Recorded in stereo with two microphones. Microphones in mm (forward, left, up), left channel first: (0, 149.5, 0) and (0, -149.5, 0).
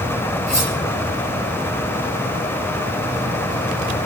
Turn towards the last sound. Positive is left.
turn(degrees=-60)  # may be behind; listen again after turning